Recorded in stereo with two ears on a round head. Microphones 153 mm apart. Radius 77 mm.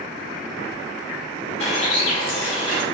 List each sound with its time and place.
1.6 s a bird: 35° left (ahead or behind), 3.5 m